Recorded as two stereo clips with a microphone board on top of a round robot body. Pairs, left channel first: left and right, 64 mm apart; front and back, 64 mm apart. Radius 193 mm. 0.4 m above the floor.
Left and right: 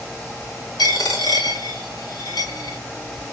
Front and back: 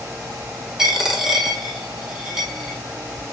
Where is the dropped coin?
100° left, 1.2 m.